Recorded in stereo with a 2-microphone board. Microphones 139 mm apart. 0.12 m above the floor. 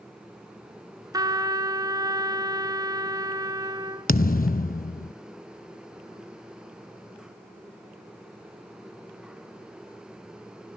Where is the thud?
75° left (ahead or behind), 0.5 m.